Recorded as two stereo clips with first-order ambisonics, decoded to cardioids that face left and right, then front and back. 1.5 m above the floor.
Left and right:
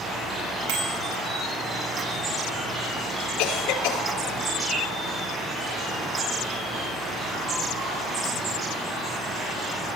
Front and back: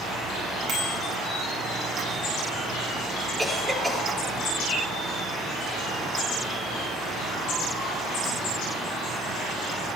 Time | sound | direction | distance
0.7 | a bicycle bell | 120° right | 8.5 m
3.4 | a cough | 100° left | 5.5 m